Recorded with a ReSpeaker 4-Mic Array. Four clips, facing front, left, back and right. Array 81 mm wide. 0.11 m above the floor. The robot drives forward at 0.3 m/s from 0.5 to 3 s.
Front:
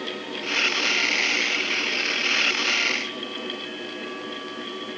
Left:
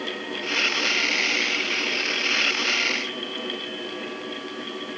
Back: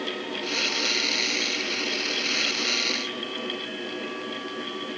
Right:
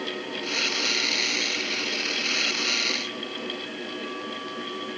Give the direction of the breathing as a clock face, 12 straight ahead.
No breathing in this recording.